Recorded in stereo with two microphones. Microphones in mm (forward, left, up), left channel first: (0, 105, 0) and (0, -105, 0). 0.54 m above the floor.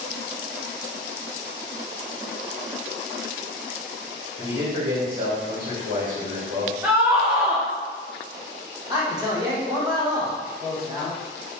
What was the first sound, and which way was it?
A man speaking, 60° right (ahead or behind).